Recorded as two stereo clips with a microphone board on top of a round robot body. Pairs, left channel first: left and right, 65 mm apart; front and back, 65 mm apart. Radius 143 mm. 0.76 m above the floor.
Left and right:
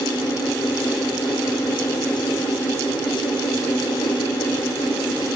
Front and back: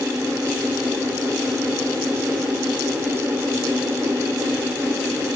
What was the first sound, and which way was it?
Only background noise.